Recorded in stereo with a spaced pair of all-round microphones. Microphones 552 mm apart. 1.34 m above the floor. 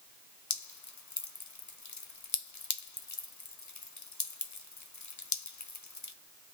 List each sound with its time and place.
0.5 s dripping: 35° left (ahead or behind), 0.5 m